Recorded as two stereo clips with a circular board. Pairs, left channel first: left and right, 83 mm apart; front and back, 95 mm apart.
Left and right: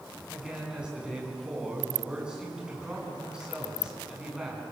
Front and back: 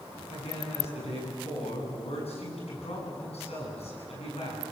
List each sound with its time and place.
0.3 s a man speaking: 10° right, 8.5 m